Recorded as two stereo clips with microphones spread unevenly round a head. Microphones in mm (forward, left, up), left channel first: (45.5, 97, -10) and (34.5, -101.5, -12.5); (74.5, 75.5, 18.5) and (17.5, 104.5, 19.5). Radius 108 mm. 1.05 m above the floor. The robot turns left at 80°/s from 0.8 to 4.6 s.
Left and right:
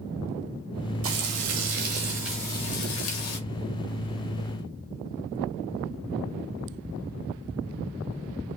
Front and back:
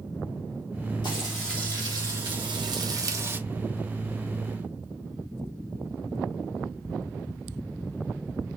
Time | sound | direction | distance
1.0 | frying | 80° right | 1.3 m